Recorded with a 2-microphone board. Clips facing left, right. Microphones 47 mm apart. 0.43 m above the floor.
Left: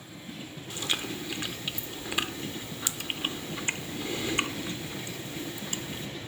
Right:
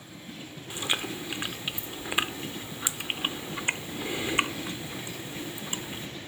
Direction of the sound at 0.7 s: 20° right (ahead or behind).